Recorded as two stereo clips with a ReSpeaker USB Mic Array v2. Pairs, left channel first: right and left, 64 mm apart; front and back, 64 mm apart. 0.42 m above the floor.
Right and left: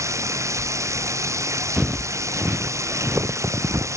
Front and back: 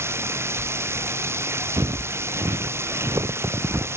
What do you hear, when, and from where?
0.0 s running water: 130° left
1.8 s footsteps: 170° left; by 3.9 s 130° left